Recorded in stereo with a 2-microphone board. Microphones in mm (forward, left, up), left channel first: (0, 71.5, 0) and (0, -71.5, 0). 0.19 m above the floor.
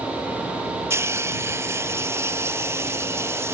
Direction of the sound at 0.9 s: 20° right (ahead or behind).